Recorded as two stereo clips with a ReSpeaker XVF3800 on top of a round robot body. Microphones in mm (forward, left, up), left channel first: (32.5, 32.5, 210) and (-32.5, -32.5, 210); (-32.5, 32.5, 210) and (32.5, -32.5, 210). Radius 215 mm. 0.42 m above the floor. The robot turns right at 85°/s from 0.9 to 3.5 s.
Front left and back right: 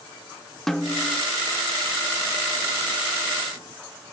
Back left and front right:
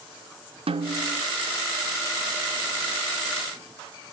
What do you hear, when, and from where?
0.7 s a snare drum: 40° right, 0.8 m; by 1.2 s 15° right, 0.8 m